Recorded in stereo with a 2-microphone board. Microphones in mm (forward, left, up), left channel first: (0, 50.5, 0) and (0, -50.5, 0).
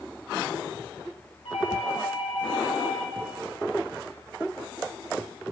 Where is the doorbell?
65° left (ahead or behind), 3.5 m.